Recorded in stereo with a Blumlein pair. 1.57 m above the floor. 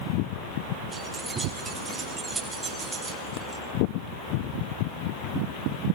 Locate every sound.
0.9 s keys jangling: 5° right, 8 m; by 3.6 s 15° right, 5 m